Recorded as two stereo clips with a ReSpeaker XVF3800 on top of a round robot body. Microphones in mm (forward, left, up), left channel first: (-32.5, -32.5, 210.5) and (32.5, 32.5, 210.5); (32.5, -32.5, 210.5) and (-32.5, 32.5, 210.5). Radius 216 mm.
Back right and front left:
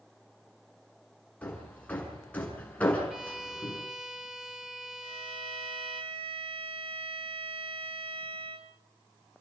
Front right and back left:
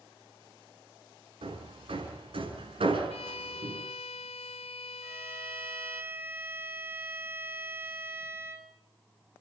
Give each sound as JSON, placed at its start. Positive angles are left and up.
{"t": 1.4, "sound": "hammering", "azimuth_deg": 150, "distance_m": 6.0}
{"t": 3.1, "sound": "a violin", "azimuth_deg": -40, "distance_m": 1.3}
{"t": 5.0, "sound": "a violin", "azimuth_deg": 65, "distance_m": 2.5}